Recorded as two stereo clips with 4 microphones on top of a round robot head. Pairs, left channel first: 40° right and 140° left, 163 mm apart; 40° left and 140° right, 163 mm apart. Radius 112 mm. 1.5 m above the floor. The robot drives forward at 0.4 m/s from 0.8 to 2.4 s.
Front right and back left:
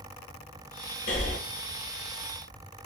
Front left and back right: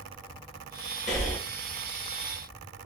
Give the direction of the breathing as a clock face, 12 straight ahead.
12 o'clock.